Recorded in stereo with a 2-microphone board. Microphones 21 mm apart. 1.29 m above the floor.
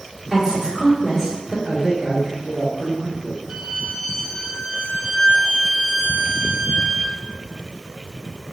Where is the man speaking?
55° right (ahead or behind), 1.9 m.